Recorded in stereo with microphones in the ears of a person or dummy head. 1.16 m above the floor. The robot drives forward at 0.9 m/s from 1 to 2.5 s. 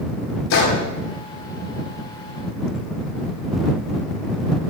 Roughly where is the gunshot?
Left.